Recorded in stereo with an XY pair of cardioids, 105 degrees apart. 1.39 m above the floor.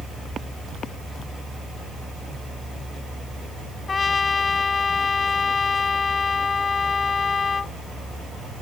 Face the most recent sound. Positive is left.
turn(degrees=35)